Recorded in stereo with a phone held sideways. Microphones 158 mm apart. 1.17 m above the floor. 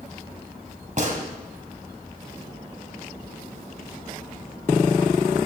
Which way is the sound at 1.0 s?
55° right (ahead or behind).